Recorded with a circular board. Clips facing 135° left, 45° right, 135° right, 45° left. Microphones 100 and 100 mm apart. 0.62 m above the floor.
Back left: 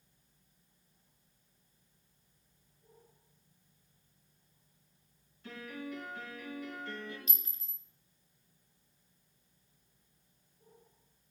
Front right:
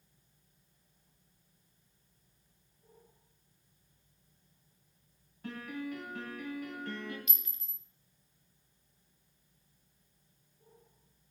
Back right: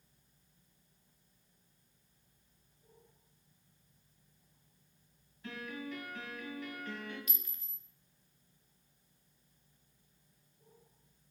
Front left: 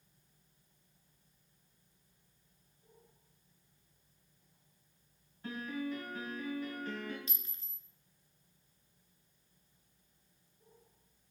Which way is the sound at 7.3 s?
95° left.